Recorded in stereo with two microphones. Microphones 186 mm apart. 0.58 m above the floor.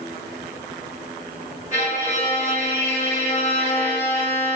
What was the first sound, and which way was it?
A violin, 40° left (ahead or behind).